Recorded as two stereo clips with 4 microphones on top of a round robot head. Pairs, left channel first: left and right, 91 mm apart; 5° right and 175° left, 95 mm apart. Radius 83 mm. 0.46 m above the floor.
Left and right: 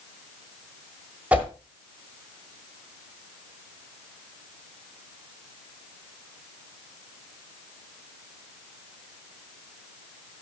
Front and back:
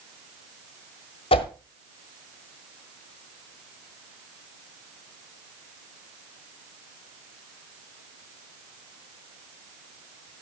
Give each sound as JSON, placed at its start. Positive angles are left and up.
{"t": 1.3, "sound": "a whoosh", "azimuth_deg": -15, "distance_m": 1.3}